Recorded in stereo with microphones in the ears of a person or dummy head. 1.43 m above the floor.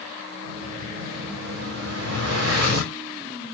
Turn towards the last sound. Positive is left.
turn(degrees=-70)  # may be behind; listen again after turning